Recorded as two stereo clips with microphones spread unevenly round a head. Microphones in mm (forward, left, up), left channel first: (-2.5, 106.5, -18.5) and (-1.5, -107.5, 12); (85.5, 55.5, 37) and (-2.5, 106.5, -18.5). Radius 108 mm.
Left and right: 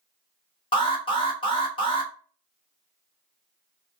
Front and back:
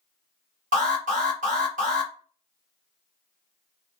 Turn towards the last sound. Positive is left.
turn(degrees=160)